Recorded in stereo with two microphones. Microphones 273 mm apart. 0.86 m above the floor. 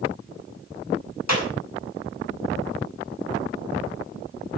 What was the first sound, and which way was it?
A clap, 85° left.